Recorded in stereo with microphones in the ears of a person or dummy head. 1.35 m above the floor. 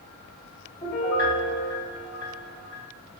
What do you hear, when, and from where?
0.8 s a piano: 15° left (ahead or behind), 1.1 m